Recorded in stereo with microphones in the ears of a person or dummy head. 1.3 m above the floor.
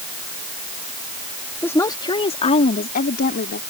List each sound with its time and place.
1.6 s a woman speaking: 15° left (ahead or behind); by 3.6 s 60° left (ahead or behind)